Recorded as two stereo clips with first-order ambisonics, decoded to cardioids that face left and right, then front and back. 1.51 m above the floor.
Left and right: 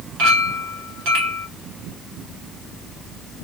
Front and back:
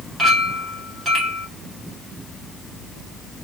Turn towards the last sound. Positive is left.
turn(degrees=-105)